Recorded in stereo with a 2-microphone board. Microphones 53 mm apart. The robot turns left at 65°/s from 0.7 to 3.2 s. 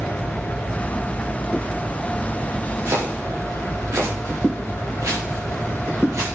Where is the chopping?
65° right (ahead or behind), 7.5 m; by 6.2 s 90° right, 7.5 m.